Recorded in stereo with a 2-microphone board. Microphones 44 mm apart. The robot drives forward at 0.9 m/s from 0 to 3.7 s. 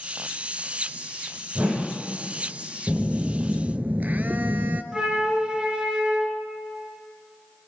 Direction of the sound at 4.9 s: 20° right (ahead or behind).